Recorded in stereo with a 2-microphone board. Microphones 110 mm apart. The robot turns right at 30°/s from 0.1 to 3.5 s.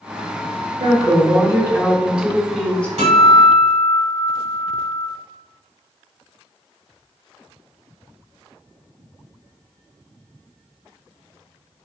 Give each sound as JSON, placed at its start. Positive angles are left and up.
{"t": 0.8, "sound": "a woman speaking", "azimuth_deg": -50, "distance_m": 0.8}
{"t": 3.0, "sound": "a guitar", "side_deg": -80, "distance_m": 1.3}